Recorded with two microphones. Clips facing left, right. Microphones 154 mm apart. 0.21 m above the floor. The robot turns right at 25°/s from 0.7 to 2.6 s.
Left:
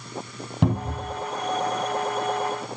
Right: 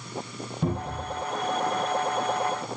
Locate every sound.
0.6 s a cupboard door: 80° left, 2.5 m